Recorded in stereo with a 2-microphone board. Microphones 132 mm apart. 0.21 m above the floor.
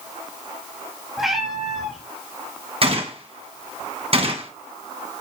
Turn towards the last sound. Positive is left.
turn(degrees=-45)  # may be behind; listen again after turning